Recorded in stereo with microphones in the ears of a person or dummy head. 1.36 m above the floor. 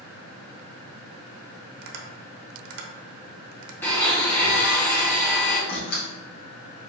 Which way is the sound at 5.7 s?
50° left (ahead or behind).